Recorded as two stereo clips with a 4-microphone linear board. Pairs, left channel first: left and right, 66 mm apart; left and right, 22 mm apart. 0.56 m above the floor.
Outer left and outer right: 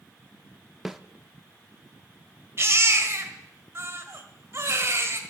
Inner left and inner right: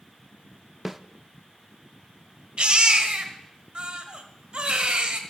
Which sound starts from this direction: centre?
A snare drum, at 0.8 s.